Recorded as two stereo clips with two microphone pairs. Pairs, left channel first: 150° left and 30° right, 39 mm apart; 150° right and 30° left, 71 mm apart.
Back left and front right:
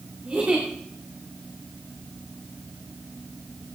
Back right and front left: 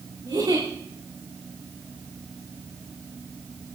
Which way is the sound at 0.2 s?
20° left.